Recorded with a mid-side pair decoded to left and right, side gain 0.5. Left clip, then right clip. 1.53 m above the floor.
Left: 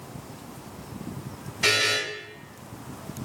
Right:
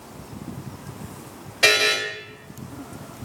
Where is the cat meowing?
I don't hear a cat meowing.